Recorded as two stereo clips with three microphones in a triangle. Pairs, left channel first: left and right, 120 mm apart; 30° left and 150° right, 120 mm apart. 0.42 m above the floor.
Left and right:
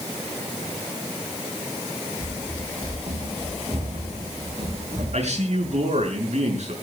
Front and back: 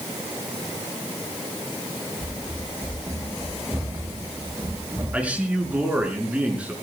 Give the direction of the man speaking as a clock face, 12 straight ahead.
2 o'clock.